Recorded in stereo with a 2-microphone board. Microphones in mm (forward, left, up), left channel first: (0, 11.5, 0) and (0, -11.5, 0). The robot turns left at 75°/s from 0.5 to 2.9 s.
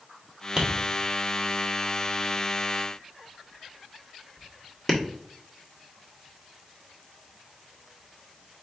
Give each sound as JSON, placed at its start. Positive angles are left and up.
{"t": 0.6, "sound": "tapping", "side_deg": -25, "distance_m": 1.3}